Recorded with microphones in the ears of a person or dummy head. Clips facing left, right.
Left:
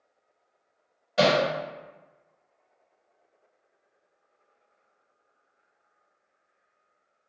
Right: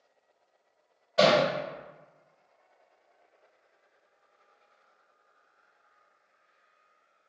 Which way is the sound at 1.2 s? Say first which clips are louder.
Even; 45° left (ahead or behind).